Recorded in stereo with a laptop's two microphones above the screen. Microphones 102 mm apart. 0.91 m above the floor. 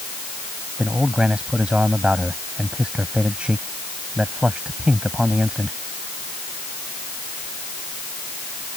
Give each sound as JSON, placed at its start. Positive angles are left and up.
{"t": 0.8, "sound": "a man speaking", "side_deg": -10}